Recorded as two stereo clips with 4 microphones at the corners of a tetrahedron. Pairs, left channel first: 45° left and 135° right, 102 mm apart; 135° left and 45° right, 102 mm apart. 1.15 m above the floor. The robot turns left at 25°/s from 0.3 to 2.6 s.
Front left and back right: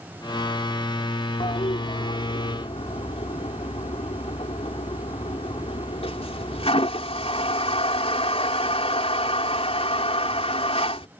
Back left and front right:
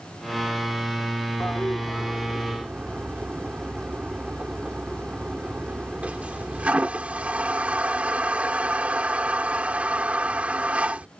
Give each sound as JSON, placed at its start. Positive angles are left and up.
{"t": 1.4, "sound": "a toilet flushing", "azimuth_deg": 60}